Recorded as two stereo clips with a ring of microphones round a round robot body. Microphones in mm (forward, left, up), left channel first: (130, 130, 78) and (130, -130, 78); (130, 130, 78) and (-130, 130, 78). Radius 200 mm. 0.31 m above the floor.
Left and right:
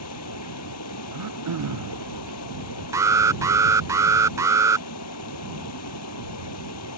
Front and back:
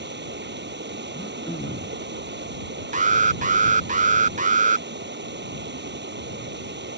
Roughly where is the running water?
Behind left.